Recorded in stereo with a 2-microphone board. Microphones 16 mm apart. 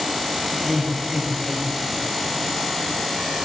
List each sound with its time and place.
0.5 s laughter: 5° right (ahead or behind), 3 m; by 2.4 s 10° right (ahead or behind), 4 m